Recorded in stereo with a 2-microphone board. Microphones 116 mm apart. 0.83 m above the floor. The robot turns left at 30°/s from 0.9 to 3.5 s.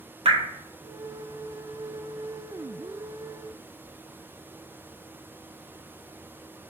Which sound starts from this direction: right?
Dripping, at 0.2 s.